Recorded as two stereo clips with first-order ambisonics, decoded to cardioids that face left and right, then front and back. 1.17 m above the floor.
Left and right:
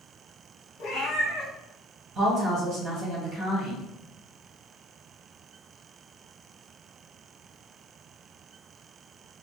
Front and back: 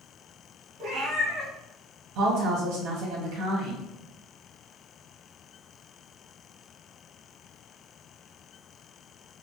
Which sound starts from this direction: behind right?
A woman speaking, at 2.1 s.